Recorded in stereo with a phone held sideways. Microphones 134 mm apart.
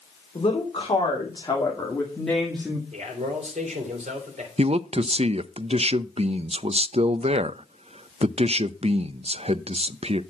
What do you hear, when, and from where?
0.3 s a woman speaking: 45° left (ahead or behind), 2.5 m; by 2.8 s centre (ahead or behind), 1.7 m
2.9 s a man speaking: 60° right (ahead or behind), 3 m
4.6 s a man speaking: 50° right (ahead or behind), 0.5 m